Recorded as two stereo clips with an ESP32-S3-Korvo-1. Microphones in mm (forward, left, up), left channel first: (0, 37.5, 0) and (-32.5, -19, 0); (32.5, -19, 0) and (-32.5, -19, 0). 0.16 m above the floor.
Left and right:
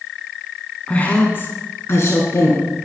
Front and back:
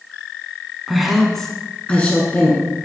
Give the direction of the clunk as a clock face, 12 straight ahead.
I don't hear a clunk.